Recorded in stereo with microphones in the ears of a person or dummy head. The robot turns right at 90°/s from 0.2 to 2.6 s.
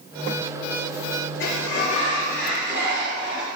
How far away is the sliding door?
About 5.5 m.